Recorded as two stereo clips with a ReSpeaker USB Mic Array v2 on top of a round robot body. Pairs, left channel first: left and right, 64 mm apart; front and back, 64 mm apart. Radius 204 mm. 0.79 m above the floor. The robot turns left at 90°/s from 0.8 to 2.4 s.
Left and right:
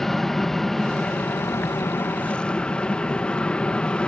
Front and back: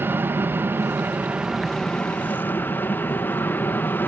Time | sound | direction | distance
0.0 | an aircraft | 170° left | ?